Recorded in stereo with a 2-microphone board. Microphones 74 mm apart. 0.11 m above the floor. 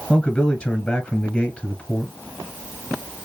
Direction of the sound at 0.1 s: 15° left (ahead or behind).